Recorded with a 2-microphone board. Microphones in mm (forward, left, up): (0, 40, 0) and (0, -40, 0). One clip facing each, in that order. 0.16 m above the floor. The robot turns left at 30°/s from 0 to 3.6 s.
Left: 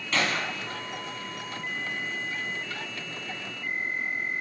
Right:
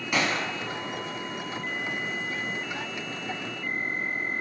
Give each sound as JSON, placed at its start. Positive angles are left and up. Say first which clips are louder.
{"t": 0.1, "sound": "a gunshot", "louder": "right 1 dB", "side_deg": -15, "distance_m": 1.7}